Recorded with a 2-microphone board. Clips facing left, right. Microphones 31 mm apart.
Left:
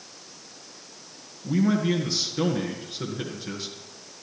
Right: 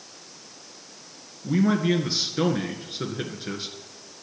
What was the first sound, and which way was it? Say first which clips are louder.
A man speaking: right 1 dB; 20° right (ahead or behind).